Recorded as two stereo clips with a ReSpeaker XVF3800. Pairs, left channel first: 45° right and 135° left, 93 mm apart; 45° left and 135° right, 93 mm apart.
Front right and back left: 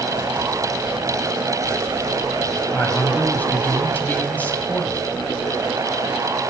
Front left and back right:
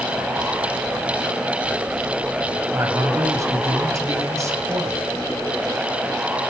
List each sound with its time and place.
2.7 s a man speaking: 110° right, 1.9 m